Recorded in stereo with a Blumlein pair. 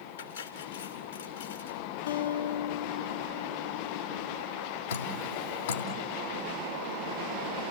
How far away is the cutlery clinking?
About 4 m.